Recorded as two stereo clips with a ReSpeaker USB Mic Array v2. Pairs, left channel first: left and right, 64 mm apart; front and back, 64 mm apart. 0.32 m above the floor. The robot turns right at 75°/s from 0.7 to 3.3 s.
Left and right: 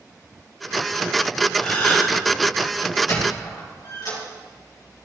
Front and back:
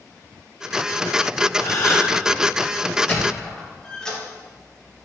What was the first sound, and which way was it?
A gasp, 5° left.